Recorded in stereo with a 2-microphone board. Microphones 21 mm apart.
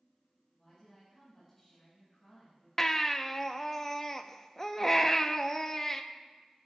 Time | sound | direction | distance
0.6 | a woman speaking | 15° left (ahead or behind) | 5 m
2.8 | a baby crying | 25° left (ahead or behind) | 0.7 m